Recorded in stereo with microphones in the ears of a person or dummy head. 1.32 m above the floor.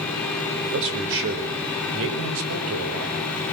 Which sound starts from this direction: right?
A man speaking, at 0.6 s.